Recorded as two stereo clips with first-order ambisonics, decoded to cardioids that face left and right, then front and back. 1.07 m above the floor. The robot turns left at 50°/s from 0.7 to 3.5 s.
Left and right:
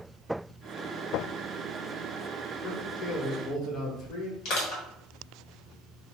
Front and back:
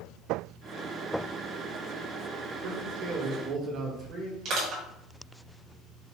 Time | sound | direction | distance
2.6 | a man speaking | 175° left | 1.1 m
4.5 | crushing | 130° left | 1.5 m